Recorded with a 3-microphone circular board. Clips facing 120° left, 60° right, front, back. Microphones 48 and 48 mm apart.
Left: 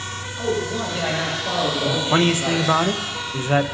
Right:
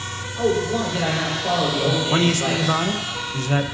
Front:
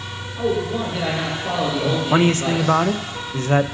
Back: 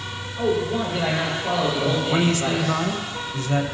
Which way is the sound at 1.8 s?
50° left.